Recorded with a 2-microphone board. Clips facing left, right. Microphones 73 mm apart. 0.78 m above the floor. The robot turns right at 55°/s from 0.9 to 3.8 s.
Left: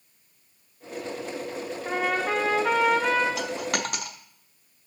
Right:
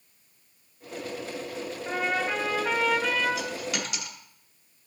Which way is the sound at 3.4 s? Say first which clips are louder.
Left 3 dB; 75° left (ahead or behind).